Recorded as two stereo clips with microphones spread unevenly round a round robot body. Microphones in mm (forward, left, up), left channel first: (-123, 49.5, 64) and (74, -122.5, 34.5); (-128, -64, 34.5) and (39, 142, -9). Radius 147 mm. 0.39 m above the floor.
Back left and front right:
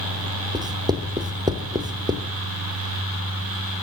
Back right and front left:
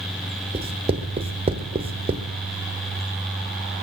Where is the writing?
15° left, 1.0 m.